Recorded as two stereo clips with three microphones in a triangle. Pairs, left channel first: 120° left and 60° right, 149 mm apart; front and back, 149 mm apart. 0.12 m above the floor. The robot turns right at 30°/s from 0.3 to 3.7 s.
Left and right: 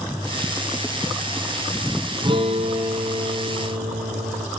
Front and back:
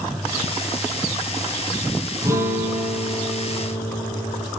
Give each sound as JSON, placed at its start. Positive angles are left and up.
{"t": 2.2, "sound": "a guitar", "azimuth_deg": -115, "distance_m": 1.4}